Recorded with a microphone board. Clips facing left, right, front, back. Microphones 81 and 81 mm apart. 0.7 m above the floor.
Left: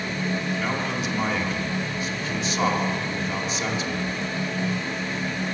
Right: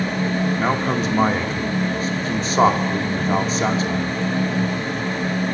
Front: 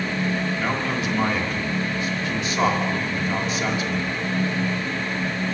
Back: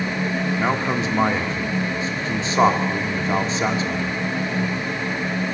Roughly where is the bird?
No bird in this recording.